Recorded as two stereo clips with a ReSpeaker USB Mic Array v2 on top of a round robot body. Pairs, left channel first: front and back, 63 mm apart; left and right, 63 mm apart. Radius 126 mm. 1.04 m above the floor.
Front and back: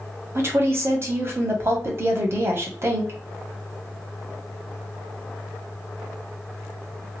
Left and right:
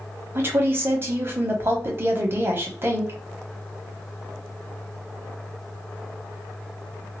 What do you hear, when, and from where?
0.3 s a woman speaking: 140° right, 1.1 m